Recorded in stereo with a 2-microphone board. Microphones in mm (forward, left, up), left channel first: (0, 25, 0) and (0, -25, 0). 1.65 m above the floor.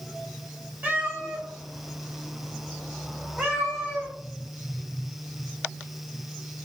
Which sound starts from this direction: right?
A cat meowing, at 0.8 s.